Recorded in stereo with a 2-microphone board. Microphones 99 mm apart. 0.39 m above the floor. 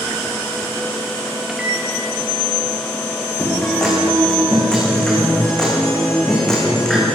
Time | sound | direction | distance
1.5 | a microwave | 5° right (ahead or behind) | 2 m
3.4 | a guitar | 5° left (ahead or behind) | 8.5 m